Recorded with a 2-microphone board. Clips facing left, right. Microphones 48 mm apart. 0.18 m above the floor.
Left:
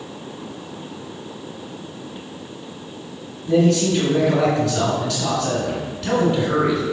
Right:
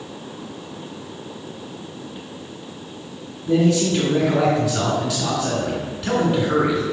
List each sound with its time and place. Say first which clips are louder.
3.5 s a man speaking: left 1 dB; 5° right (ahead or behind), 2 m